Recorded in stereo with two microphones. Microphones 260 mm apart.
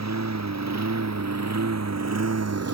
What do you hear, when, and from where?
0.0 s a lawn mower: 80° right; by 2.7 s 65° right (ahead or behind)